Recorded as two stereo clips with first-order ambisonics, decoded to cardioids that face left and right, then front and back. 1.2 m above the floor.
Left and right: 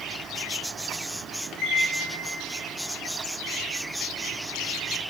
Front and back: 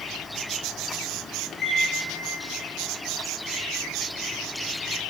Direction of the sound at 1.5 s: 50° left.